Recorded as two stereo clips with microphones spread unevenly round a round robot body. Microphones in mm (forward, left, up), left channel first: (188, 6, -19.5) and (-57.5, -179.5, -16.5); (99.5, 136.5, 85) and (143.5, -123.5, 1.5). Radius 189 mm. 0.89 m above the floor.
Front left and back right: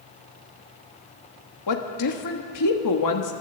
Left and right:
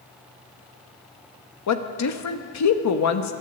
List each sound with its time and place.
1.7 s a woman speaking: 75° left, 1.3 m